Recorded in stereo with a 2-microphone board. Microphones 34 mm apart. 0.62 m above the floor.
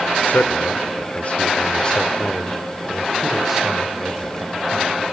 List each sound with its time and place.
0.3 s a man speaking: 60° left (ahead or behind), 1.6 m; by 5.0 s 20° right (ahead or behind), 2.5 m